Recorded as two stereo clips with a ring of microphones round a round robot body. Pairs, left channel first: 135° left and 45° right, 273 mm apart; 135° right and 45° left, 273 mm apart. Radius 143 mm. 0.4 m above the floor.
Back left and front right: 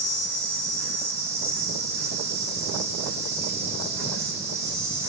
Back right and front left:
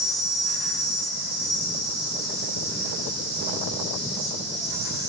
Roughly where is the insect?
Ahead.